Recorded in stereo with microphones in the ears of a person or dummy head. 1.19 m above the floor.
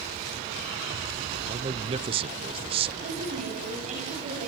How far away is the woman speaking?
About 9 m.